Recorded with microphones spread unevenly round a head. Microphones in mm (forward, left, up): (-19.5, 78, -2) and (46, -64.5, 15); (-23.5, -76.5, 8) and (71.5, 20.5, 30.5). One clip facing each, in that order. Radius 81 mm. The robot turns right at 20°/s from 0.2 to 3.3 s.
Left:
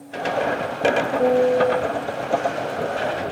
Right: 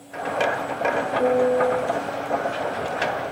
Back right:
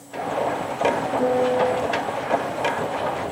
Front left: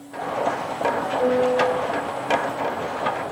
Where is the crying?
No crying in this recording.